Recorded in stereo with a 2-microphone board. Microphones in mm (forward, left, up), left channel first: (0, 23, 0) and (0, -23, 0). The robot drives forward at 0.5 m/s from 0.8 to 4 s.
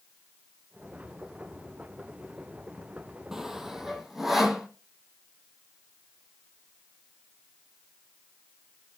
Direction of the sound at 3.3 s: 10° right (ahead or behind).